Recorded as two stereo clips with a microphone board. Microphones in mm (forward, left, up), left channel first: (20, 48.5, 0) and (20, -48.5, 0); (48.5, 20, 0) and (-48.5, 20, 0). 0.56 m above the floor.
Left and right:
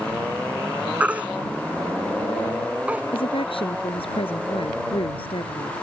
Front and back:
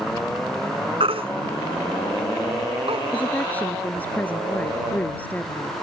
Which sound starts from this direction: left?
A woman speaking, at 3.1 s.